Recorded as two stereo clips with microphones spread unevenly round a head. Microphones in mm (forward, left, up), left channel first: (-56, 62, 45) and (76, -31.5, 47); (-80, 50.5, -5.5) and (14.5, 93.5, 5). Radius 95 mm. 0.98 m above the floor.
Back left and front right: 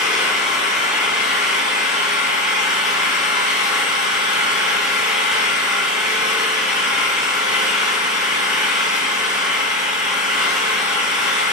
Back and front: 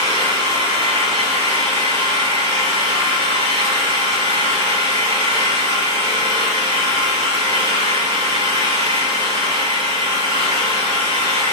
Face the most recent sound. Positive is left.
turn(degrees=-120)